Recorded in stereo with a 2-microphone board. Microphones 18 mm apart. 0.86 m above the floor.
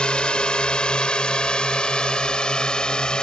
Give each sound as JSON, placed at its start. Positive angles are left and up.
{"t": 0.0, "sound": "a drone", "side_deg": 70}